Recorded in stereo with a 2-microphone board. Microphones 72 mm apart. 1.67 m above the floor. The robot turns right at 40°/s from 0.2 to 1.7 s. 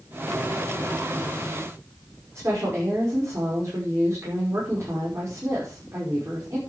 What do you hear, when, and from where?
2.4 s a woman speaking: 40° right (ahead or behind), 5.5 m